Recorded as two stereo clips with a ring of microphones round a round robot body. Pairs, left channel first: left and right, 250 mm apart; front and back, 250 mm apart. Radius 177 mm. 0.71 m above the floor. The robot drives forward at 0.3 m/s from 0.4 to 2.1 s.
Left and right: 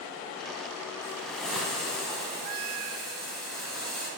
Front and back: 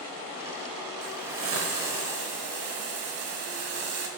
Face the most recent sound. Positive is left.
turn(degrees=180)